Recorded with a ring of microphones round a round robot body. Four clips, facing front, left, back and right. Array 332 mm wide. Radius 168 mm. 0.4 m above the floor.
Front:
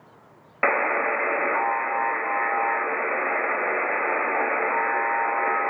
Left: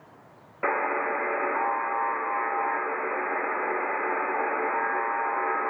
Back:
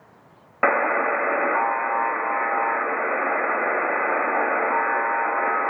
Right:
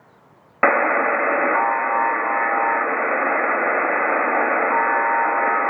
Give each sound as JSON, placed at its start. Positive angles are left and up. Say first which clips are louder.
{"t": 0.6, "sound": "a buzzer", "louder": "right 9 dB, back 2 dB", "azimuth_deg": -100, "distance_m": 0.6}